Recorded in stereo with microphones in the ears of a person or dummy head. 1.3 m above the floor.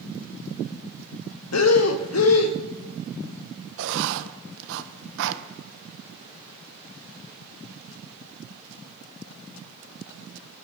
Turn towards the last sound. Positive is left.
turn(degrees=-65)  # may be behind; listen again after turning